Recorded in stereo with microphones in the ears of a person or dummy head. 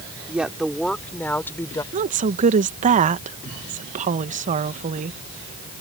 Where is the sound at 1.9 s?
40° right (ahead or behind).